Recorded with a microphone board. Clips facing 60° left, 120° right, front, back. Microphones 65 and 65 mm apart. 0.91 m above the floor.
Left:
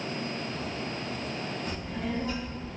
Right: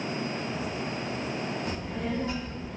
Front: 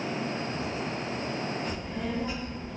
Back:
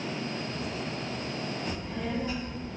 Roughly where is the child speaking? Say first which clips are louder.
Right 2 dB, front 1 dB; right.